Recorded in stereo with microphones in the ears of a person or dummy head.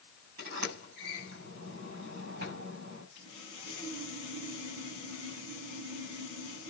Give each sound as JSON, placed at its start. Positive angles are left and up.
{"t": 0.4, "sound": "a sliding door", "side_deg": -75, "distance_m": 6.5}
{"t": 3.1, "sound": "sawing", "side_deg": -65, "distance_m": 5.0}